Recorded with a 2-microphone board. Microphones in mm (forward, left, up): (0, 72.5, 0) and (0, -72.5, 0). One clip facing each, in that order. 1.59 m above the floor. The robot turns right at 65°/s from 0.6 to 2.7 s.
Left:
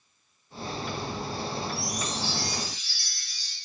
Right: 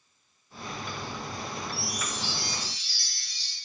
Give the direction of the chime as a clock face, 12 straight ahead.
6 o'clock.